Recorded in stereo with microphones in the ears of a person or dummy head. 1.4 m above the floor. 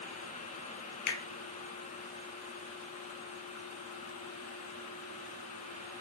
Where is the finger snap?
70° left (ahead or behind), 1.2 m.